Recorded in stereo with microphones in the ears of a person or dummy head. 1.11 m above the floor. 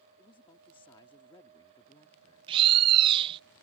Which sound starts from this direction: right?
A bird, at 2.5 s.